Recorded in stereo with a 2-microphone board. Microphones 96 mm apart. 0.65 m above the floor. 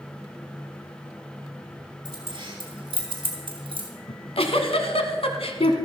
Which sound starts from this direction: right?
Keys jangling, at 2.0 s.